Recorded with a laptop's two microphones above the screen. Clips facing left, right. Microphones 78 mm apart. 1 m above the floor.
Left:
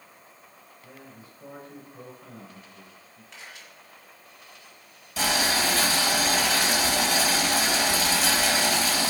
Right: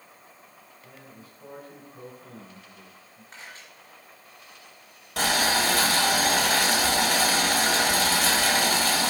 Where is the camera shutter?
35° right (ahead or behind), 3.5 m.